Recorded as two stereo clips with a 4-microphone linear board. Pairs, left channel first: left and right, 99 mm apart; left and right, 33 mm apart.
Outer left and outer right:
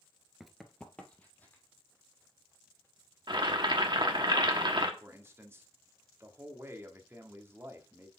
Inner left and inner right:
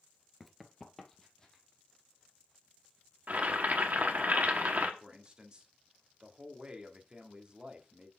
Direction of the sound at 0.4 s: 5° right (ahead or behind).